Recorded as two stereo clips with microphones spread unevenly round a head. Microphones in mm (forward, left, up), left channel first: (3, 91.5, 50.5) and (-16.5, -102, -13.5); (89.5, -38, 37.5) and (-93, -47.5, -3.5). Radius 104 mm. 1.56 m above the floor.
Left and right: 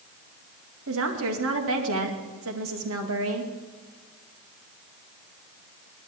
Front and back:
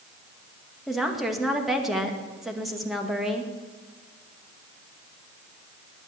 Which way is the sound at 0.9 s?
85° right.